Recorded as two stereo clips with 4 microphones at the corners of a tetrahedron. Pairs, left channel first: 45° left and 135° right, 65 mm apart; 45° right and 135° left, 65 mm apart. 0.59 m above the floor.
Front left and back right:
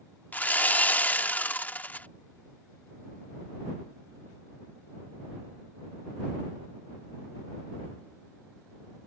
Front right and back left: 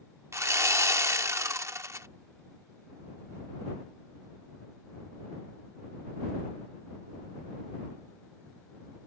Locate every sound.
0.3 s sawing: 105° left